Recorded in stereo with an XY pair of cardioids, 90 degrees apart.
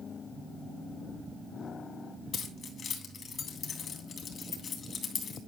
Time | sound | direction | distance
2.3 | keys jangling | 60° left | 3 m